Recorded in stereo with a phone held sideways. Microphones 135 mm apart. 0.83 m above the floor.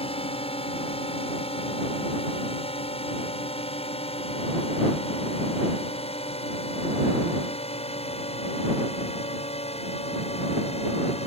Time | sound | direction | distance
0.0 | a drone | 45° left (ahead or behind) | ?